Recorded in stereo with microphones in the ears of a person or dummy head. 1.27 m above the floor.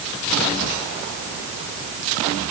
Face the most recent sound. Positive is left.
No sound to turn to.